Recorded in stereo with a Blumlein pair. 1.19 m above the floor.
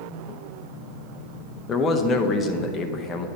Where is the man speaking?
20° left, 0.7 m.